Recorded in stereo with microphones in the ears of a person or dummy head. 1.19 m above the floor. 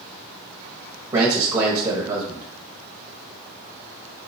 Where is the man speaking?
20° right (ahead or behind), 1.1 m.